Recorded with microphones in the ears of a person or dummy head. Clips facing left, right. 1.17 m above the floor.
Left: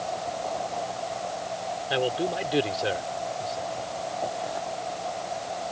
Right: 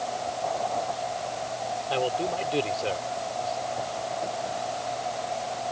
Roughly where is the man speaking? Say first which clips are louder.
Left 1 dB; centre.